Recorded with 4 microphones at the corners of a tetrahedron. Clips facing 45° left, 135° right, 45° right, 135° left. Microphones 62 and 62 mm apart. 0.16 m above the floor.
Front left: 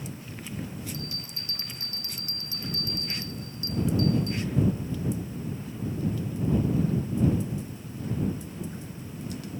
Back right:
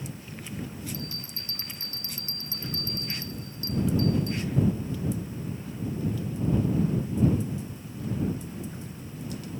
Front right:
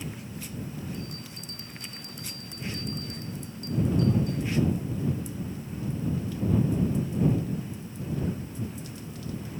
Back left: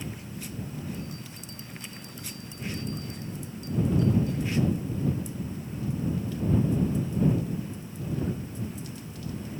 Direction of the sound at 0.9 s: 75° right.